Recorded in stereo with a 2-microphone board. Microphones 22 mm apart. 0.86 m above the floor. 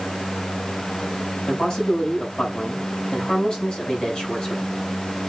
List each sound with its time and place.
1.5 s a man speaking: 40° left (ahead or behind), 6.5 m